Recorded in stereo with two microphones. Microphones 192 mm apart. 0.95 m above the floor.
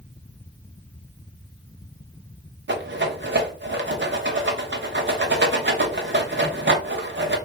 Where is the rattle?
65° right (ahead or behind), 1.0 m.